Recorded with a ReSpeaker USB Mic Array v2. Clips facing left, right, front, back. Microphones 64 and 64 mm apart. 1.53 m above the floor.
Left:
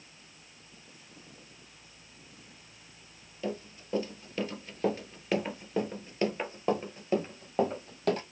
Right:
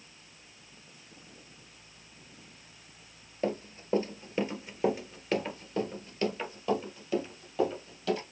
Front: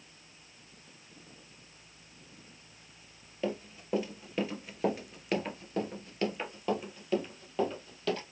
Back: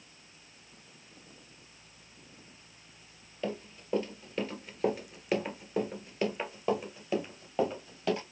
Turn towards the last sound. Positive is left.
turn(degrees=110)